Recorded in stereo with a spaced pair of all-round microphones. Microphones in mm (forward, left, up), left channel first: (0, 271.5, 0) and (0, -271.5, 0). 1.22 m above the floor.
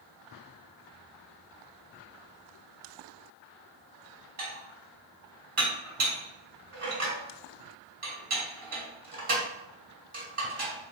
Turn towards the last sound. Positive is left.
turn(degrees=-70)  # may be behind; listen again after turning